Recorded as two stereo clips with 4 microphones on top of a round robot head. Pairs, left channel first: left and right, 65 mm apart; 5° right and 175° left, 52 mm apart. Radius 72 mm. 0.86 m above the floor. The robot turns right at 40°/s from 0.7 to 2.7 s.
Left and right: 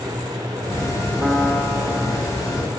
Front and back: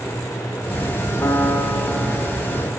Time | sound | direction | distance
1.2 | a piano | 5° right | 1.4 m